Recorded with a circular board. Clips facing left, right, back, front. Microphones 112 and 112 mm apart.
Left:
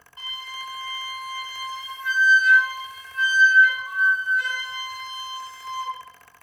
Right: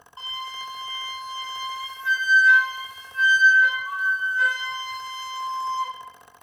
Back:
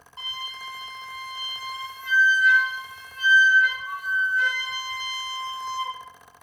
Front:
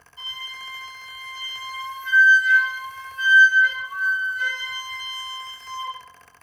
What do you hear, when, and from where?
0.2 s a flute: 150° right, 0.8 m